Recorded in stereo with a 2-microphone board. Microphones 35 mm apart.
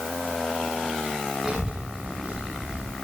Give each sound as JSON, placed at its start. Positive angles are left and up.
{"t": 1.4, "sound": "a child speaking", "side_deg": 0, "distance_m": 9.5}